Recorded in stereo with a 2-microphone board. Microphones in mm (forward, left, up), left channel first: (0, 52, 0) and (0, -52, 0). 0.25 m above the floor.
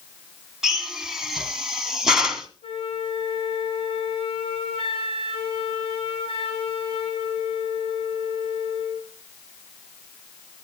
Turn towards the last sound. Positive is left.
turn(degrees=65)  # may be behind; listen again after turning